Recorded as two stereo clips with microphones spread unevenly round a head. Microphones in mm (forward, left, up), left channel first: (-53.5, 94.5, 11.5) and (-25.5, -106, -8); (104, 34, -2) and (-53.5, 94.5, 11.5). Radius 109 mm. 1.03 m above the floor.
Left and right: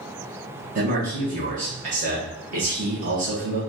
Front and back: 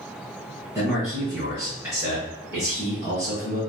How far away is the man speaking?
About 1.4 m.